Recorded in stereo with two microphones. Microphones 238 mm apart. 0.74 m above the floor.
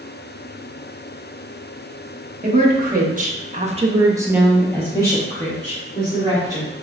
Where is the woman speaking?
35° right (ahead or behind), 1.3 m; by 6.7 s 25° left (ahead or behind), 1.9 m.